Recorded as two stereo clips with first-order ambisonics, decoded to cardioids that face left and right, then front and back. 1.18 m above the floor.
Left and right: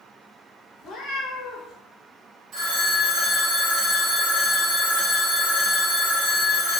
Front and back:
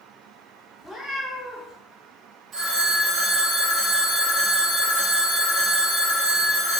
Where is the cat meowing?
90° left, 0.6 m.